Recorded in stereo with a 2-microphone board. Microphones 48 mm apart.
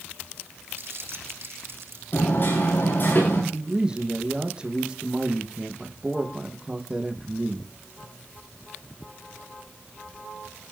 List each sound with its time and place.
0.8 s crumpling: 55° right (ahead or behind), 6.5 m
2.1 s hammering: 50° left (ahead or behind), 10 m
3.5 s a man speaking: 20° right (ahead or behind), 4.5 m